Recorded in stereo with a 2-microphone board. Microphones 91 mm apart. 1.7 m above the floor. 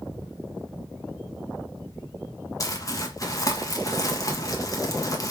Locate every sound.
2.6 s crumpling: 35° left (ahead or behind), 1.5 m